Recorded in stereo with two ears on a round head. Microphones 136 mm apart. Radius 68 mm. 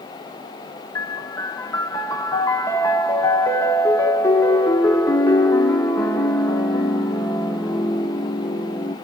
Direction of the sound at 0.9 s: 20° left (ahead or behind).